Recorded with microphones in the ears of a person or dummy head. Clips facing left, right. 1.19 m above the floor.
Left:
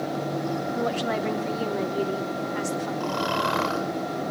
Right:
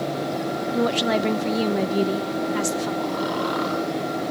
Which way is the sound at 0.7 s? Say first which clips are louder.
Right 8 dB; 50° right (ahead or behind).